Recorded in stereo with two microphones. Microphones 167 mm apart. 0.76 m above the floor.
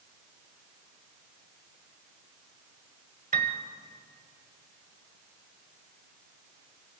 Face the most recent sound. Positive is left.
turn(degrees=-55)  # may be behind; listen again after turning